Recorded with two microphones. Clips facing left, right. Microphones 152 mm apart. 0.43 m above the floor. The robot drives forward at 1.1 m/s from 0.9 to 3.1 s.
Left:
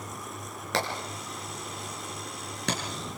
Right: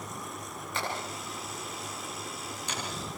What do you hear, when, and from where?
0.7 s hammering: 80° left, 5.5 m; by 2.8 s 70° left (ahead or behind), 5.5 m